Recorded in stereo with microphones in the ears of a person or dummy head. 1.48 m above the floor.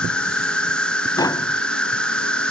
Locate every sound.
0.0 s an insect: 10° left (ahead or behind)
1.2 s tapping: 20° left (ahead or behind)